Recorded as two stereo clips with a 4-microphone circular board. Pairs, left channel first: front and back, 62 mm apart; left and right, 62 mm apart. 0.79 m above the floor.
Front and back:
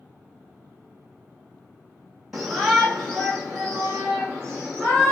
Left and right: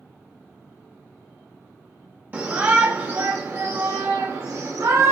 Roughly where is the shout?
Right.